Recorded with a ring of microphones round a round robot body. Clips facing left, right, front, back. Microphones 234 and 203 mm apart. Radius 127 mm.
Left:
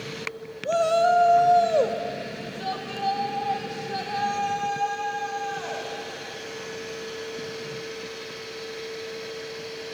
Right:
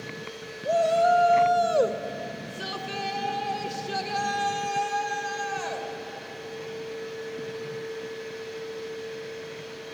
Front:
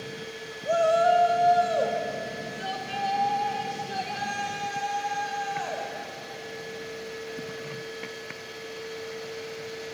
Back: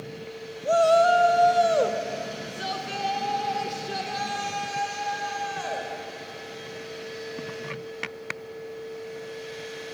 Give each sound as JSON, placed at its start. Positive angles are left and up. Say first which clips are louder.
{"t": 0.7, "sound": "a shout", "louder": "left 1 dB, back 3 dB", "azimuth_deg": 155, "distance_m": 1.0}